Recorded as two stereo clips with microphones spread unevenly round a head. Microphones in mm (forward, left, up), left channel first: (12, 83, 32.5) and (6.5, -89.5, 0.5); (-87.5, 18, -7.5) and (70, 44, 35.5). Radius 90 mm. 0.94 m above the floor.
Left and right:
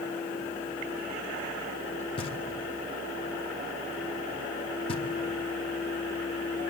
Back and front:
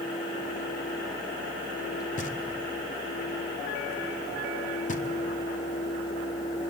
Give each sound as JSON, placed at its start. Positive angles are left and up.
{"t": 2.2, "sound": "knocking", "azimuth_deg": 155, "distance_m": 1.6}